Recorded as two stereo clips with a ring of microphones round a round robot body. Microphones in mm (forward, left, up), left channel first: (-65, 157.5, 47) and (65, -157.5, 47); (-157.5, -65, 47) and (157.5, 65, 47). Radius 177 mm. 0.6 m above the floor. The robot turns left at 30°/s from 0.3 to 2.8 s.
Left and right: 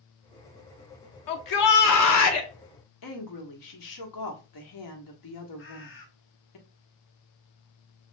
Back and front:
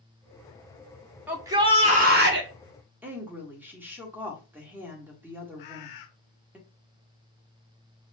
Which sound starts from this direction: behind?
A bird, at 5.6 s.